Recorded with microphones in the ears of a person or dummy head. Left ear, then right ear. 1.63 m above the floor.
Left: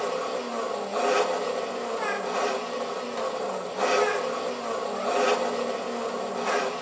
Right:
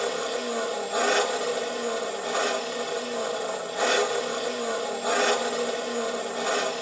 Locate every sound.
0.0 s an engine running: 35° right (ahead or behind), 2.5 m